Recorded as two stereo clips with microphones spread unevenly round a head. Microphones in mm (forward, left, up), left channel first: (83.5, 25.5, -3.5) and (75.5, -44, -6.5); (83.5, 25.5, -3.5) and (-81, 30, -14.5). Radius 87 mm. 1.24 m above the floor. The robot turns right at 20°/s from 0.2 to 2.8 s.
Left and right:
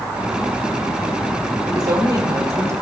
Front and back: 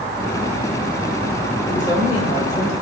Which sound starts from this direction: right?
A woman speaking, at 1.6 s.